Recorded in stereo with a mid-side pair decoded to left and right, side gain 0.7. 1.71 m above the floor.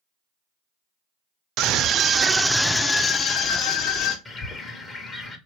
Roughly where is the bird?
Ahead left.